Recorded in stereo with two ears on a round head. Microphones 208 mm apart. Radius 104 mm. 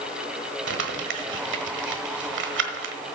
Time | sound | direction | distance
0.7 | crumpling | 55° right (ahead or behind) | 1.3 m